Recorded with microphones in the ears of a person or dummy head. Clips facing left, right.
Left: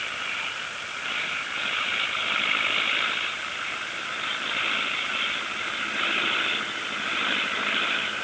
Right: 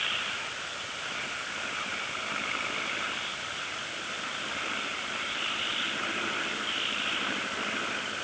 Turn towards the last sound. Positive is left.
No sound to turn to.